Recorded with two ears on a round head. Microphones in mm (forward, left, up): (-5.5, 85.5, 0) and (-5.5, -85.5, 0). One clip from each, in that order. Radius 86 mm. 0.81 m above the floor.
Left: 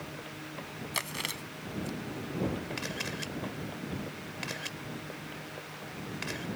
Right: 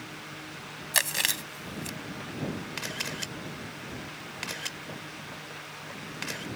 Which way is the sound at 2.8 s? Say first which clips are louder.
Right 2 dB; 30° right (ahead or behind).